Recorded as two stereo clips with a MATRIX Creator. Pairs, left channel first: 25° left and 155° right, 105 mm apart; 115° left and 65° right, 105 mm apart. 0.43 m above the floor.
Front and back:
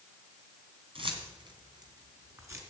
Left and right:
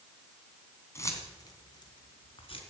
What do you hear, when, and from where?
0.9 s keys jangling: 175° left, 2.5 m; by 2.6 s 140° left, 3 m